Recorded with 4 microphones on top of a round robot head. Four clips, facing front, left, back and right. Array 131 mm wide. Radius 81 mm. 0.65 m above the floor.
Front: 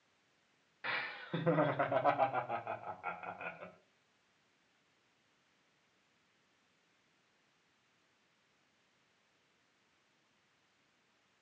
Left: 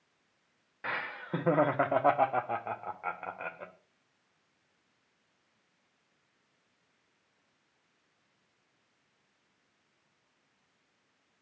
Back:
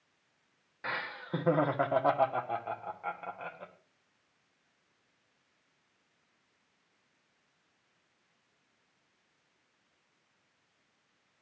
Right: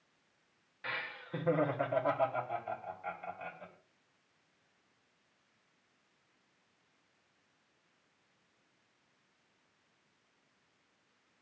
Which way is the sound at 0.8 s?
125° left.